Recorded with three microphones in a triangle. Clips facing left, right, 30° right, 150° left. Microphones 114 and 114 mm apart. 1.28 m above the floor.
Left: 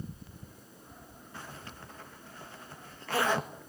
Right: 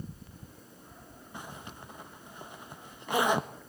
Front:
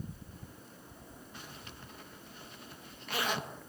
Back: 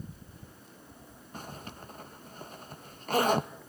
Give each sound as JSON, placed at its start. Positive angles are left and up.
{"t": 1.3, "sound": "a zipper", "azimuth_deg": -165, "distance_m": 1.4}